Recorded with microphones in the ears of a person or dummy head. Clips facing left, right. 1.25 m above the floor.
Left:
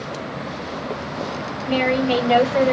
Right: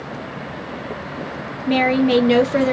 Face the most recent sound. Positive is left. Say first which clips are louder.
# right 3 dB
turn(degrees=-55)  # may be behind; listen again after turning